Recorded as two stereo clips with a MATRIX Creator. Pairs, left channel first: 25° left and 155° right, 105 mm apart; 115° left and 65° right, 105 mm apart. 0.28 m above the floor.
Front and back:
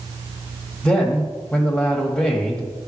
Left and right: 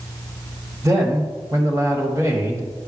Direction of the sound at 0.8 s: 45° right.